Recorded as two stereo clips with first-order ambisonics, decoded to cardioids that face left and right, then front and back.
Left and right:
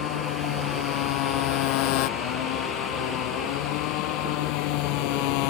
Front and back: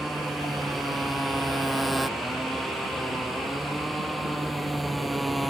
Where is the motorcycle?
95° left; by 5.5 s 90° left.